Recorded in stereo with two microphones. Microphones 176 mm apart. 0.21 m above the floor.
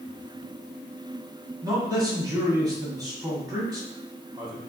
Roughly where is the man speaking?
Right.